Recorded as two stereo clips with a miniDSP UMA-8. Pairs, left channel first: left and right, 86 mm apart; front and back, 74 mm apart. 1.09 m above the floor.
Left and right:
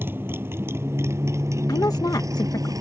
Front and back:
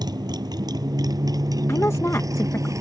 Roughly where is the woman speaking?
Ahead left.